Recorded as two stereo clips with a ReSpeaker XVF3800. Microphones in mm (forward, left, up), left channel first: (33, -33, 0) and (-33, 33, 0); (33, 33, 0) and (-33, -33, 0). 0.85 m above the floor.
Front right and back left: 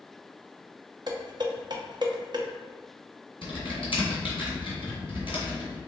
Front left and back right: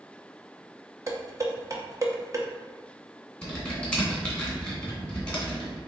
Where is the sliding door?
I don't hear a sliding door.